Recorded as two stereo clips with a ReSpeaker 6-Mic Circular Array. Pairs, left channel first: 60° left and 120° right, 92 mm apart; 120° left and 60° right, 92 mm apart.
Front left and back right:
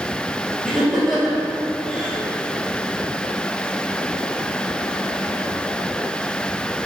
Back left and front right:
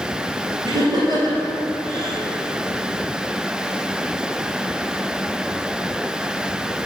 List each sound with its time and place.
0.6 s laughter: 30° right, 1.9 m